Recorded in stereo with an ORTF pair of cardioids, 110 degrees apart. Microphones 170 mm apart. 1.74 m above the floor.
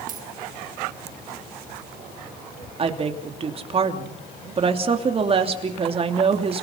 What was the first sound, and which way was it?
A dropped coin, 50° right.